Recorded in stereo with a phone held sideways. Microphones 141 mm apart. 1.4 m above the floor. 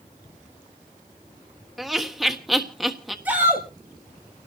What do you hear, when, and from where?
1.8 s laughter: centre (ahead or behind), 1.5 m
3.2 s a shout: 10° right (ahead or behind), 7 m